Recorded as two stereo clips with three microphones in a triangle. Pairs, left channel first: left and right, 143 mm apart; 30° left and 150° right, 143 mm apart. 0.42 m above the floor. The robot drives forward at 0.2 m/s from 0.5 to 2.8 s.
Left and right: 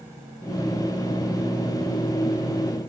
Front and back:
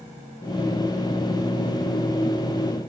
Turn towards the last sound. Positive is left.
No sound to turn to.